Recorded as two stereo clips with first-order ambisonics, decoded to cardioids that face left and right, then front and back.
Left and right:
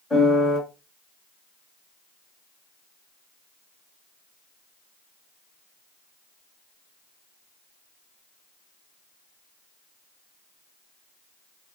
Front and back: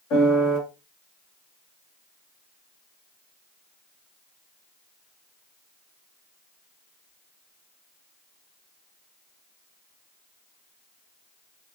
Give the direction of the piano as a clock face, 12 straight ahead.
12 o'clock.